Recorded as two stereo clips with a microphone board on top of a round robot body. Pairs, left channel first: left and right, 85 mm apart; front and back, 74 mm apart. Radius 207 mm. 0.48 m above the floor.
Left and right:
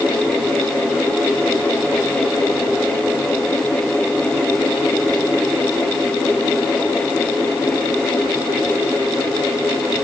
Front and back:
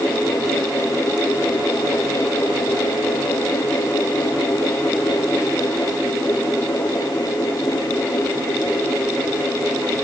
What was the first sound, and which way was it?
Only background noise.